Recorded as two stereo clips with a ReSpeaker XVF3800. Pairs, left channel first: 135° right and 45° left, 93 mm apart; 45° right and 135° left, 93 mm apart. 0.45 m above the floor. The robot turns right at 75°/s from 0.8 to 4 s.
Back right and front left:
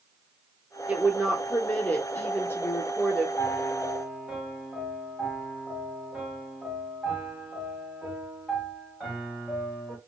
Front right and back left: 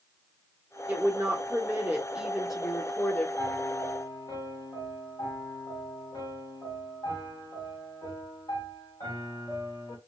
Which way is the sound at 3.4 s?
95° right.